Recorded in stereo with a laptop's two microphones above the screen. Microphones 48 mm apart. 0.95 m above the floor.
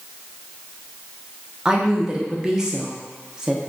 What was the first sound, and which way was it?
A woman speaking, 15° right (ahead or behind).